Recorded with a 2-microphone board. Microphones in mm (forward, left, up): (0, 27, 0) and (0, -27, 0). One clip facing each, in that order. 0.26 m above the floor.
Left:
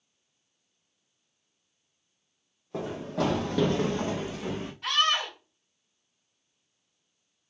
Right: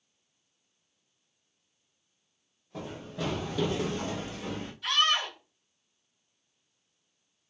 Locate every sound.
2.7 s running footsteps: 65° left (ahead or behind), 0.7 m; by 4.7 s 10° left (ahead or behind), 1.0 m
4.8 s a scream: 40° left (ahead or behind), 1.9 m